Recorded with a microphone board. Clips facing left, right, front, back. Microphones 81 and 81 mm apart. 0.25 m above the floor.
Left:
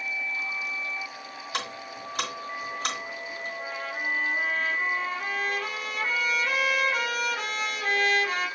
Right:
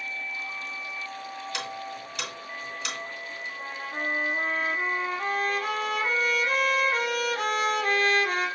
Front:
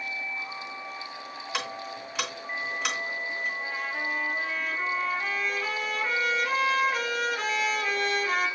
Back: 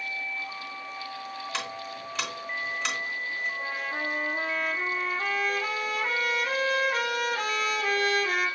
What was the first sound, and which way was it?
Ticking, 80° left.